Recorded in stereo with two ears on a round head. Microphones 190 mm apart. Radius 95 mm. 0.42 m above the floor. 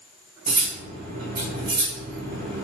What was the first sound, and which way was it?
Cutlery clinking, 35° right (ahead or behind).